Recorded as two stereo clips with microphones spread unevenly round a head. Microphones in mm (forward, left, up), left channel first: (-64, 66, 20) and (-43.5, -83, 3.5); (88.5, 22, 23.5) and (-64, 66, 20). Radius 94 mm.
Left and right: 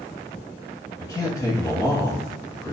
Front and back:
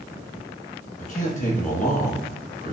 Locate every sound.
1.0 s a man speaking: 20° left, 1.9 m